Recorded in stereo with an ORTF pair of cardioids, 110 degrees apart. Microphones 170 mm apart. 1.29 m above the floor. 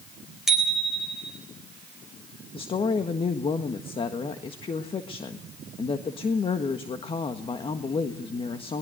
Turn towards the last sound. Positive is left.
turn(degrees=30)